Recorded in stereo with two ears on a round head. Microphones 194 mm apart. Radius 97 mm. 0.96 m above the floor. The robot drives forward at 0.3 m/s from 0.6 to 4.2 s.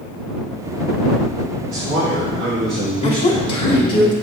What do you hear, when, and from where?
1.7 s a man speaking: 55° right (ahead or behind), 2.0 m; by 4.0 s 65° right (ahead or behind), 1.8 m
3.0 s a woman speaking: 25° left (ahead or behind), 1.2 m; by 4.1 s 20° left (ahead or behind), 1.5 m